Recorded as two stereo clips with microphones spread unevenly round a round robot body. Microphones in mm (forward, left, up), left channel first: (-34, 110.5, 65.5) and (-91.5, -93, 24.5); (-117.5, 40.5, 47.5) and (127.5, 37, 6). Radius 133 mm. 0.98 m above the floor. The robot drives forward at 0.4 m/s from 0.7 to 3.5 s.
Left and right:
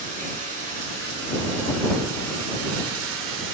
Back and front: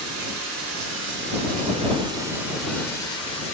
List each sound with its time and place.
0.0 s running water: 40° right, 1.0 m; by 3.5 s 130° right, 0.9 m